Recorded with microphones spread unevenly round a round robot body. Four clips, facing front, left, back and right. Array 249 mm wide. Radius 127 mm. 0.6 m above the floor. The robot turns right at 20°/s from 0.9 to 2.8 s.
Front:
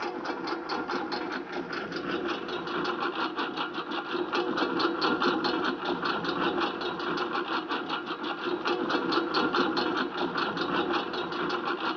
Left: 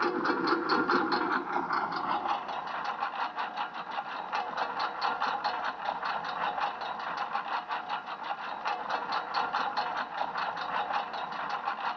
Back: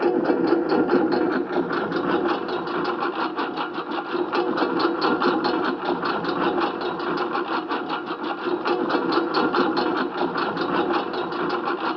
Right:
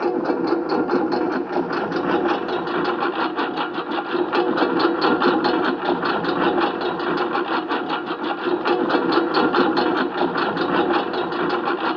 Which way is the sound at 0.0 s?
145° right.